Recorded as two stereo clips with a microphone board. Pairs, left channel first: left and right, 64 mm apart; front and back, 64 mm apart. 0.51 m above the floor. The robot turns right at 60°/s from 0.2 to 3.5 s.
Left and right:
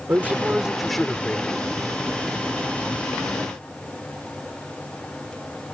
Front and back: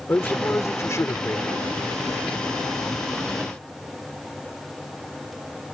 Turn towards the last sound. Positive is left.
turn(degrees=155)